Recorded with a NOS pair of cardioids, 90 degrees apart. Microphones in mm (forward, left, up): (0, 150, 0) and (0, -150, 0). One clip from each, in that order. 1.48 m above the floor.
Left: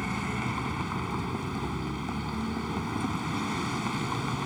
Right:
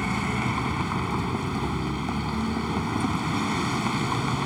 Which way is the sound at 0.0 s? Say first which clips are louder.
Right 5 dB; 30° right.